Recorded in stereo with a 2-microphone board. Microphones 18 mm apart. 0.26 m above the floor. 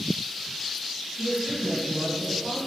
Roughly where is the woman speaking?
Centre.